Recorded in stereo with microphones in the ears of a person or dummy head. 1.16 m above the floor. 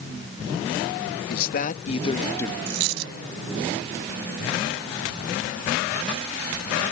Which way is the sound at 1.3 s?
60° left (ahead or behind).